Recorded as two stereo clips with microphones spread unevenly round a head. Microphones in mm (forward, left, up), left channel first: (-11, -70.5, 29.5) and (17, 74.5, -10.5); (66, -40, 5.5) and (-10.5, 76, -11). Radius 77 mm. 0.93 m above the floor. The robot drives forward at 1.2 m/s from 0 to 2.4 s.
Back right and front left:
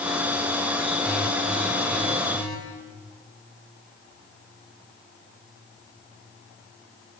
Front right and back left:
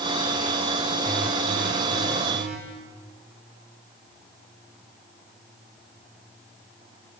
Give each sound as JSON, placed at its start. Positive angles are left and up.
{"t": 1.1, "sound": "an alarm", "azimuth_deg": 170, "distance_m": 3.0}